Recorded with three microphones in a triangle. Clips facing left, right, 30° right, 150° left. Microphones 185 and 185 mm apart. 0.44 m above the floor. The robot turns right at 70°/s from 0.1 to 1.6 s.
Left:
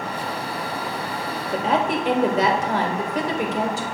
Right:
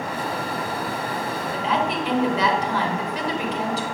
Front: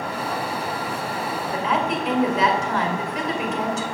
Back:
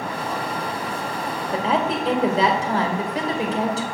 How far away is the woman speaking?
About 1.6 m.